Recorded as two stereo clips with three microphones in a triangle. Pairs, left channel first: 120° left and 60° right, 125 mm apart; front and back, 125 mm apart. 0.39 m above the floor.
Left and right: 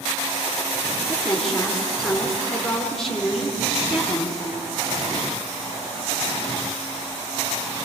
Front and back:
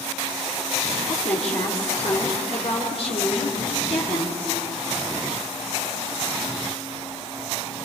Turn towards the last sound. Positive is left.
turn(degrees=35)